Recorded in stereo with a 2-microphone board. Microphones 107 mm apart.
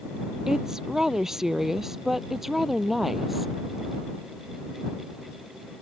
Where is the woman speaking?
5° right (ahead or behind); by 3.5 s centre (ahead or behind).